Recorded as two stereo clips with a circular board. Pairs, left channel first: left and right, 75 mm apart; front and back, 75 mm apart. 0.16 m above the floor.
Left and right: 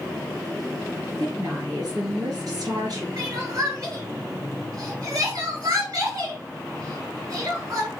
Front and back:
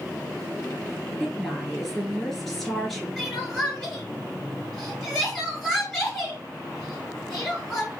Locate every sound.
1.2 s a woman speaking: 90° right, 2.0 m
3.2 s crying: 85° right, 2.5 m